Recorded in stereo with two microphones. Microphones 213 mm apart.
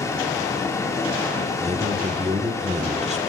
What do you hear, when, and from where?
0.0 s running water: 15° left (ahead or behind), 2.5 m
1.6 s a man speaking: 30° right (ahead or behind), 1.6 m